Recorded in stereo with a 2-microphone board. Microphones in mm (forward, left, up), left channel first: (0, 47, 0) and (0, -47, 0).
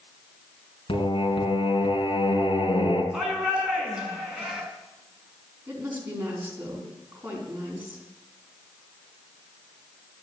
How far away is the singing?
About 3 m.